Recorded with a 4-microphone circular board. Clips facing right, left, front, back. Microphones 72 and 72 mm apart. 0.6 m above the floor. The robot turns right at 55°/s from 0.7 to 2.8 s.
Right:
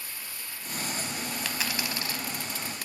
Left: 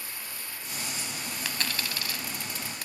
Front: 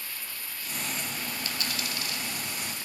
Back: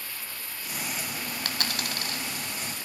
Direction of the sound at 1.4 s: Straight behind.